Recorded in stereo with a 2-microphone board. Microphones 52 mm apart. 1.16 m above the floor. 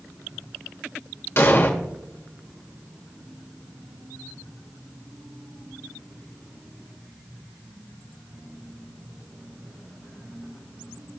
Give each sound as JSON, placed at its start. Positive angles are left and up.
{"t": 1.4, "sound": "an explosion", "side_deg": 50, "distance_m": 1.6}